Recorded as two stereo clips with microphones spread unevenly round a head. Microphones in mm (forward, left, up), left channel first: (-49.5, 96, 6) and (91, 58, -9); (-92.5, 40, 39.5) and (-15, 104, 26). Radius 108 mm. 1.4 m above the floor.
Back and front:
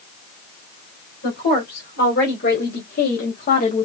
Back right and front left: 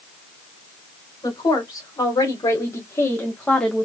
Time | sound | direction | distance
1.2 | a woman speaking | 170° left | 2 m